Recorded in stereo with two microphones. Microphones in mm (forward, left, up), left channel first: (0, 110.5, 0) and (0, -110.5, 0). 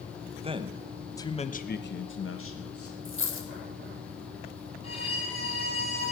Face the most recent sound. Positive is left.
turn(degrees=25)  # may be behind; listen again after turning